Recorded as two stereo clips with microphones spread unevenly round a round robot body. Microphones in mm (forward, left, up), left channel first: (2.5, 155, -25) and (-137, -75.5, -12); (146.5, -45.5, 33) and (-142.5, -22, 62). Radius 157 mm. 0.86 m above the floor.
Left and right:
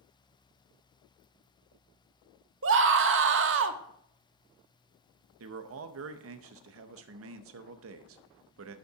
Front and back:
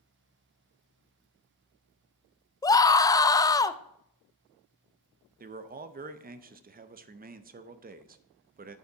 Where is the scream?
75° right, 0.6 m.